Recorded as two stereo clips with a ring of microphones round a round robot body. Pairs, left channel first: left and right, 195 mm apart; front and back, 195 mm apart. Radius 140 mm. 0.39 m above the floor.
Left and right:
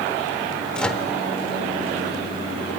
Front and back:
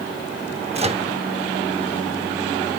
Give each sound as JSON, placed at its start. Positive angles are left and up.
{"t": 0.7, "sound": "a microwave", "azimuth_deg": 170, "distance_m": 0.7}